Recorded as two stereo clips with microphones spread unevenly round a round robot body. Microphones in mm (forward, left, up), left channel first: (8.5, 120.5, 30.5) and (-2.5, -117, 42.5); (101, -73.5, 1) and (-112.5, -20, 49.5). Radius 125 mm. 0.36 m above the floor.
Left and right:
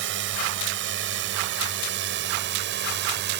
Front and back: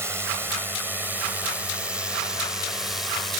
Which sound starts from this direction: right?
A drone, at 0.0 s.